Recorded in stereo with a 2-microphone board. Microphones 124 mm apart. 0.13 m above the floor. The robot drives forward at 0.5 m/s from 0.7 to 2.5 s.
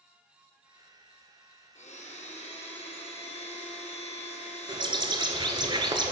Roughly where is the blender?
Left.